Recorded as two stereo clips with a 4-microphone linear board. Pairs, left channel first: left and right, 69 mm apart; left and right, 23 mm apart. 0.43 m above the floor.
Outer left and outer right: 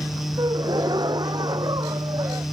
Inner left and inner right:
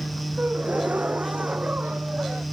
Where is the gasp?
85° right.